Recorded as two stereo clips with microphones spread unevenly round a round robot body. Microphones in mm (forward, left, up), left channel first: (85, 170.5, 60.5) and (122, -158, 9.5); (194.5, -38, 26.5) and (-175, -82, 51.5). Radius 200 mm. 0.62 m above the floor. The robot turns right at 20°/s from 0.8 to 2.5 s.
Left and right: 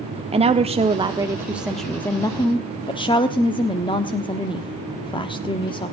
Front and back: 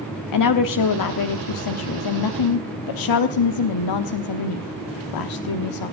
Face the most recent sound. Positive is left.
turn(degrees=15)